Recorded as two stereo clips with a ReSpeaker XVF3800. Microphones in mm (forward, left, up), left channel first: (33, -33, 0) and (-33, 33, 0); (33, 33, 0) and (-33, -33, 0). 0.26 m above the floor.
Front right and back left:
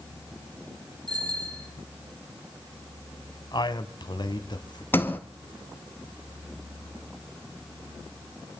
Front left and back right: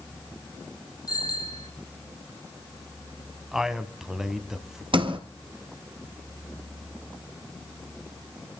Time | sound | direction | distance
1.1 | a bicycle bell | 90° left | 6.5 m
3.5 | a man speaking | 50° right | 1.9 m
4.9 | a sliding door | 115° right | 2.5 m